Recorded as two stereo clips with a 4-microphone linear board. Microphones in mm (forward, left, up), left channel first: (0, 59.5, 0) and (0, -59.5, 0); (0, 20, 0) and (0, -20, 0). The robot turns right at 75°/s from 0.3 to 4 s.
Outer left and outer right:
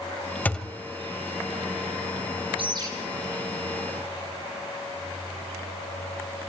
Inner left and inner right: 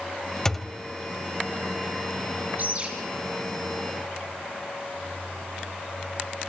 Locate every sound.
0.5 s a thud: 15° left (ahead or behind), 1.1 m; by 0.8 s 15° right (ahead or behind), 1.1 m
2.6 s a bird: 50° right (ahead or behind), 7.5 m; by 2.9 s 30° right (ahead or behind), 7.5 m